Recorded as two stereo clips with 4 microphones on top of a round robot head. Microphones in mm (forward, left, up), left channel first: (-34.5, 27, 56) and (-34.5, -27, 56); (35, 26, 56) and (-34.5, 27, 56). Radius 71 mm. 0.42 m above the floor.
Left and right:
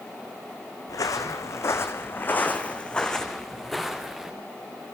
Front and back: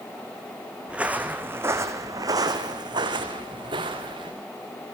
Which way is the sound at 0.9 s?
105° left.